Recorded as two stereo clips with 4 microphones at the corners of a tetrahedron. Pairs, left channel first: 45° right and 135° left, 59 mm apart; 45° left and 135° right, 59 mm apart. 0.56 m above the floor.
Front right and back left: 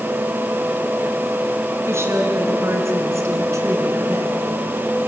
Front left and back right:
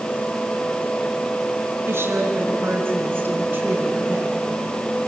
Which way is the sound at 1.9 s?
Straight behind.